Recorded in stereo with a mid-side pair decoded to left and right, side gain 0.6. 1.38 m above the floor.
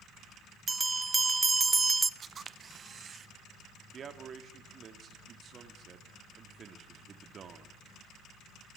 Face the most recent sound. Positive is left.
turn(degrees=-40)